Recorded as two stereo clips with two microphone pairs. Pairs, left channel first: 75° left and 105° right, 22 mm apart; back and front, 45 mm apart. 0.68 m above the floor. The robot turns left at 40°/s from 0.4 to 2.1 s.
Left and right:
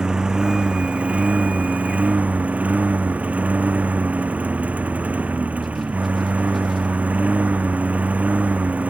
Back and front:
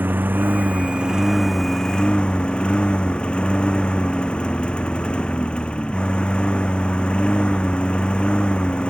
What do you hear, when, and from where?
0.0 s a lawn mower: 45° right; by 8.9 s 115° right